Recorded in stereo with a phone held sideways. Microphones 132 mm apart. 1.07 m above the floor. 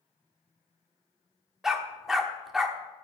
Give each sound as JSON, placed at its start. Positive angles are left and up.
{"t": 1.6, "sound": "a dog barking", "side_deg": -5, "distance_m": 1.2}